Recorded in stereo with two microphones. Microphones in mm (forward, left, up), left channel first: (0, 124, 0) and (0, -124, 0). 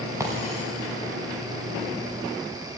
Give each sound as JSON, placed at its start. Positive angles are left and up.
{"t": 0.2, "sound": "breaking glass", "side_deg": -10, "distance_m": 5.0}